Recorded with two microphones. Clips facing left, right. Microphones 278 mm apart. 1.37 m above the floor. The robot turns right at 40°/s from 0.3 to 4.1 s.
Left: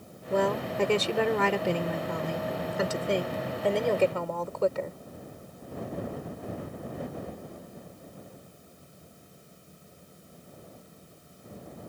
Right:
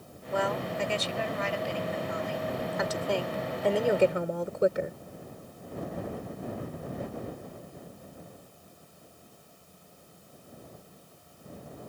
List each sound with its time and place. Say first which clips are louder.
0.3 s a woman speaking: left 4 dB; 45° left; by 5.0 s 165° right